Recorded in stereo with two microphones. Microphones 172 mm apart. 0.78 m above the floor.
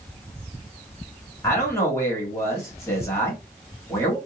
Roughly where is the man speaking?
Centre.